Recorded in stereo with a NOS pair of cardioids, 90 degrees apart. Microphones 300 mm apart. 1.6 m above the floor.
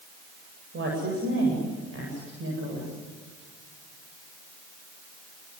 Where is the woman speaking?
40° right, 8.5 m.